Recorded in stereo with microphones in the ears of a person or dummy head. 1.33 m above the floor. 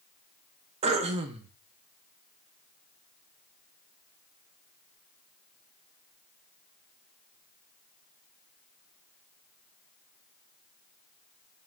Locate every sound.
0.8 s throat clearing: 35° right (ahead or behind), 0.5 m